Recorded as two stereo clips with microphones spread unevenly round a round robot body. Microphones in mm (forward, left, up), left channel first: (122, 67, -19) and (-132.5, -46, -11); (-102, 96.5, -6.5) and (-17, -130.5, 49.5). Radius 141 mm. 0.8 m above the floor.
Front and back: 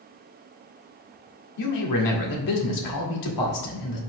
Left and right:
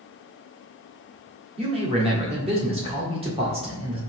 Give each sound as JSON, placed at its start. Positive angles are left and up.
{"t": 1.6, "sound": "a man speaking", "azimuth_deg": 5, "distance_m": 1.8}